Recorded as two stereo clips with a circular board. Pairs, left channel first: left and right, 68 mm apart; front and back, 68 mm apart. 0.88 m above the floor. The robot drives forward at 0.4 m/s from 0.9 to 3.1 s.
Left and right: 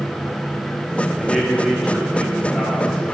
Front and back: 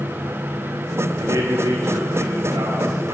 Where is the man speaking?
Straight behind, 1.2 m.